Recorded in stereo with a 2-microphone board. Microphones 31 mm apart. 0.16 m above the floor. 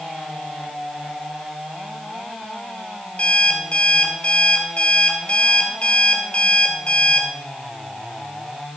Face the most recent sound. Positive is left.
turn(degrees=35)  # may be behind; listen again after turning